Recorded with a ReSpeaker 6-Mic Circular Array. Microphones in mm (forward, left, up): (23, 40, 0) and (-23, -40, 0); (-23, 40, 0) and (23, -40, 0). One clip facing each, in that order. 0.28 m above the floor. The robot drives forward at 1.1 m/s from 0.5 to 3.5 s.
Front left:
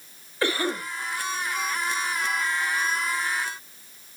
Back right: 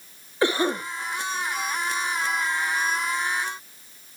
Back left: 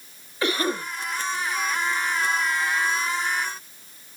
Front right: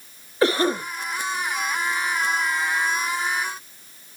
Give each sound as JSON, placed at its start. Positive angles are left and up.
{"t": 0.4, "sound": "a cough", "azimuth_deg": -65, "distance_m": 1.2}